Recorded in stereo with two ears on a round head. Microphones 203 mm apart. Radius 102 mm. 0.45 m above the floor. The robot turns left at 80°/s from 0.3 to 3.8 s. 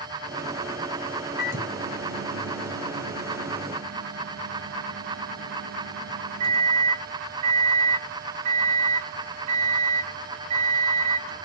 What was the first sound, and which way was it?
A microwave, 45° left.